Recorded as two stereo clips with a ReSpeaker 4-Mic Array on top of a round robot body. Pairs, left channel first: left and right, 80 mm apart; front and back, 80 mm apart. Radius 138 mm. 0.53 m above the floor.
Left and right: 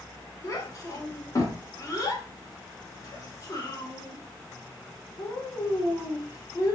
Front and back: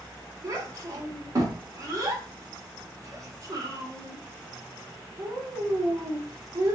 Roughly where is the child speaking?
Behind left.